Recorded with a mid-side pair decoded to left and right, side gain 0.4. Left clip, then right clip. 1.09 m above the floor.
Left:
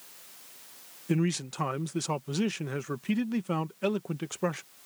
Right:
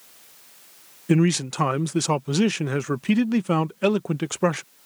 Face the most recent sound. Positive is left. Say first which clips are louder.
# right 9 dB
turn(degrees=-60)